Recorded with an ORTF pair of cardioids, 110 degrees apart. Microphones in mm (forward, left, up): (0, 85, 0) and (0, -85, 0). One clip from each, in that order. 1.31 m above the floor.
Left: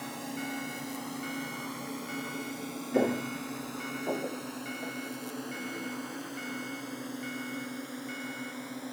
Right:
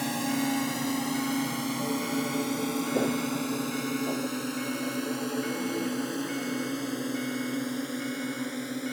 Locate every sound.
0.0 s a drone: 55° right; by 8.9 s 40° right
2.9 s footsteps: 20° left